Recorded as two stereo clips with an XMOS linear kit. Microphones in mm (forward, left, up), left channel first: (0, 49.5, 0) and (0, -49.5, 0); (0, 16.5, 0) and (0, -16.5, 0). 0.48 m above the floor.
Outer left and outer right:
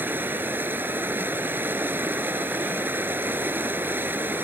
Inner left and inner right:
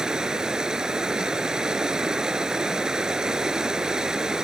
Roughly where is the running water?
Right.